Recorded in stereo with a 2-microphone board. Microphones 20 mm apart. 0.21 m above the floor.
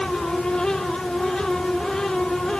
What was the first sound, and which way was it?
Only background noise.